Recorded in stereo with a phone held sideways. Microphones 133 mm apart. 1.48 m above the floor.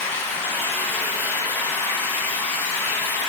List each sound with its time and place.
0.0 s running water: 15° left (ahead or behind), 1.0 m